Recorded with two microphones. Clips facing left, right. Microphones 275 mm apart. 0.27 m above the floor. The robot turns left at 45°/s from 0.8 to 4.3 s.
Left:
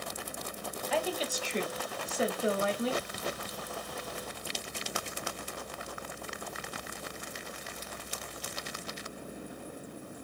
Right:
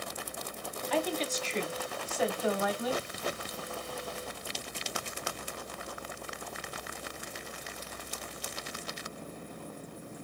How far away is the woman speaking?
About 1.0 m.